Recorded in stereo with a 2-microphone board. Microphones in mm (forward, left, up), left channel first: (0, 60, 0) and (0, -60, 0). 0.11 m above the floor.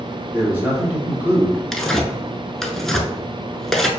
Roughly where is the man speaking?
Centre.